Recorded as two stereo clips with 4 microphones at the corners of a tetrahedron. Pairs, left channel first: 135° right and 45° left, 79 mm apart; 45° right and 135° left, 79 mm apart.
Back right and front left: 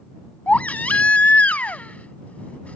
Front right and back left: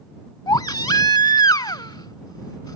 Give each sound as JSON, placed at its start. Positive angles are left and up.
{"t": 0.5, "sound": "a baby crying", "azimuth_deg": -65}